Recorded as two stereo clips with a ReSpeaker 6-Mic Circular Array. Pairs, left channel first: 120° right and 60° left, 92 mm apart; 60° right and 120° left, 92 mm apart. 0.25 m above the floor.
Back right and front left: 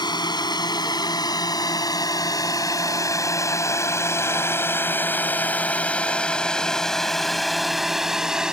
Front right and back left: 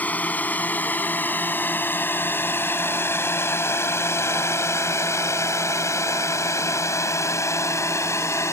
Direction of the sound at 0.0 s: 130° right.